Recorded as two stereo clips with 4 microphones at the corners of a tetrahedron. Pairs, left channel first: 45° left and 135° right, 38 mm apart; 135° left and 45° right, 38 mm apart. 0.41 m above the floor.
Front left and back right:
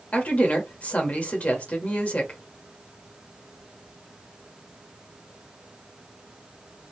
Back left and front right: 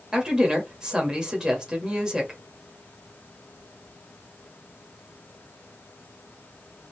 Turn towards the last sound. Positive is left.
turn(degrees=15)